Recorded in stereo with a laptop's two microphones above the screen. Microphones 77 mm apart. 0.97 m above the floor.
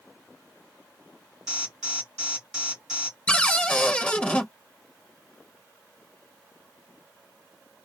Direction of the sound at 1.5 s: 5° right (ahead or behind).